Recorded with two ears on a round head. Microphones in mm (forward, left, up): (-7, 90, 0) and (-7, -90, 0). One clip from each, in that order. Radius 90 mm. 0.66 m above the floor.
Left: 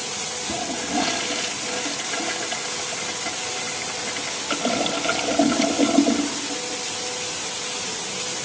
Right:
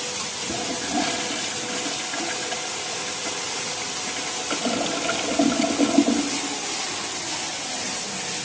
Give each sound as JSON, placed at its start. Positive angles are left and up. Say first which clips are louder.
{"t": 0.5, "sound": "a toilet flushing", "louder": "left 1 dB", "side_deg": 10, "distance_m": 0.8}